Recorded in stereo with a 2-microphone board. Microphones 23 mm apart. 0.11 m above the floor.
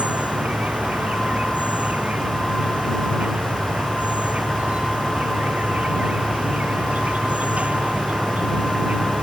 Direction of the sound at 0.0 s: 70° right (ahead or behind).